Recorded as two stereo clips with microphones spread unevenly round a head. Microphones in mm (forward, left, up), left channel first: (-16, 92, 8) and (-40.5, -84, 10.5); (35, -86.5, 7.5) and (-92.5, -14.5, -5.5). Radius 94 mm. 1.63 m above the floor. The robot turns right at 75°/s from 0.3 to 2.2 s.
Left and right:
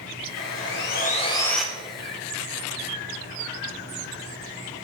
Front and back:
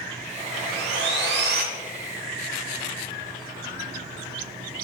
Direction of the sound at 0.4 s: 80° left.